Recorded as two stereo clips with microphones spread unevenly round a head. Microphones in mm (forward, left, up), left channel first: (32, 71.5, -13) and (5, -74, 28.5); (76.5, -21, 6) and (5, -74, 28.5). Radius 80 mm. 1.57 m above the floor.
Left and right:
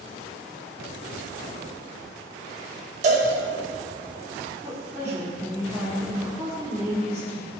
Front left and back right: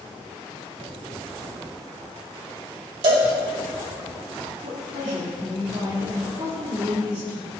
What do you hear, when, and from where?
3.0 s a cowbell: 140° right, 2.5 m
4.6 s a woman speaking: straight behind, 4 m